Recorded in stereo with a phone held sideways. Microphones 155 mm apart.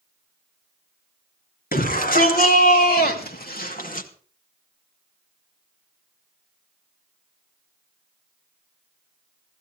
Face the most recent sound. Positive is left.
turn(degrees=60)  # may be behind; listen again after turning